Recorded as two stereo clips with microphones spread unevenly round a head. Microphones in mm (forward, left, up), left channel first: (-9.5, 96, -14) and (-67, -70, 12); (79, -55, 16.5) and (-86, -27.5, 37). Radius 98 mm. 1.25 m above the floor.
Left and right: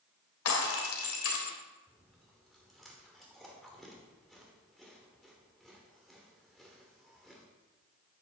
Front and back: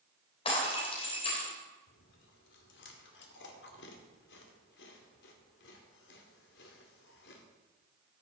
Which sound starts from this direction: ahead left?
Breaking glass, at 0.5 s.